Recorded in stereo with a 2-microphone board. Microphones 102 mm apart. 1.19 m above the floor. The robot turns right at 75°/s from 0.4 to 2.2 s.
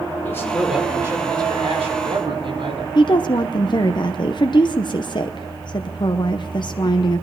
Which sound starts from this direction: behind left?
A man speaking, at 0.2 s.